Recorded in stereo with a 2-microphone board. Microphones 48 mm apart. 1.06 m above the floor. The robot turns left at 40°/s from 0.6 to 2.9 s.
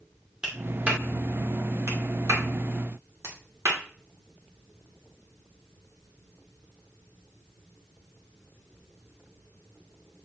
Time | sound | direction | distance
0.4 | a clap | 15° right (ahead or behind) | 2.5 m